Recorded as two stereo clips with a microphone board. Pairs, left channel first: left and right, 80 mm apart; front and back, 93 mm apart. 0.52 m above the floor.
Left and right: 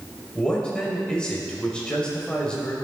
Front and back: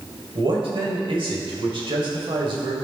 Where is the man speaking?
165° left, 1.9 m.